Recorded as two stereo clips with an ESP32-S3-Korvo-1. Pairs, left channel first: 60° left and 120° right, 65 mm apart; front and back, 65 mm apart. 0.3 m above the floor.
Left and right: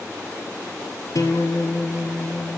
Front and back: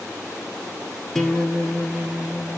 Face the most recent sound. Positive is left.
turn(degrees=85)